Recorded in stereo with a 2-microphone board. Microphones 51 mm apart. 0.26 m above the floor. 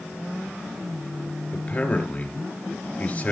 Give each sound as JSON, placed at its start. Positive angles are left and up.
{"t": 1.5, "sound": "a man speaking", "side_deg": 30, "distance_m": 5.0}